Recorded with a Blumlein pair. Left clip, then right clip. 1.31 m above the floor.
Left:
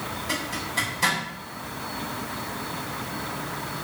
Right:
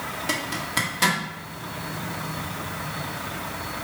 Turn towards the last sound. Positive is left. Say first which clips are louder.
# right 2 dB
turn(degrees=-35)